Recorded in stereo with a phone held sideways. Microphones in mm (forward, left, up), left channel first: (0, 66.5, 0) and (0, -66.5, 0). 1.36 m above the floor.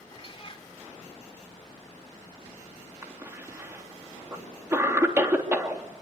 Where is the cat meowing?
40° left (ahead or behind), 2 m.